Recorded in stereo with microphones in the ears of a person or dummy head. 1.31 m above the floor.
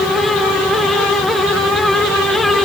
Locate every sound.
Only background noise.